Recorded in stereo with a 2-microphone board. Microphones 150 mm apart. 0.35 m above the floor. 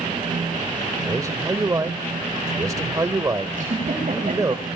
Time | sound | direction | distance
1.1 | a man speaking | 25° right (ahead or behind) | 0.9 m
3.5 | a giggle | 55° right (ahead or behind) | 9.5 m